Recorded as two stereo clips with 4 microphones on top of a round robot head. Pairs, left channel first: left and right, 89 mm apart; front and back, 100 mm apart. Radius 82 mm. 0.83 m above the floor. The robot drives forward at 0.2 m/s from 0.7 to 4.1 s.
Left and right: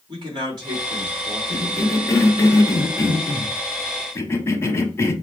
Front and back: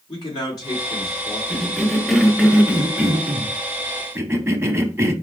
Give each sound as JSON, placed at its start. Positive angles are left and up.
{"t": 0.1, "sound": "a man speaking", "azimuth_deg": -50, "distance_m": 1.6}
{"t": 1.5, "sound": "a cough", "azimuth_deg": 80, "distance_m": 1.0}